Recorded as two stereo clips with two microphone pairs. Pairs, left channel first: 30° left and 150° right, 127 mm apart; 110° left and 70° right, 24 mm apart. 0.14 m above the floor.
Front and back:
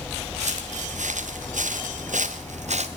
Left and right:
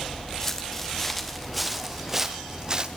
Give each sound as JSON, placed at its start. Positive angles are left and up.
{"t": 0.4, "sound": "footsteps", "azimuth_deg": -175, "distance_m": 1.9}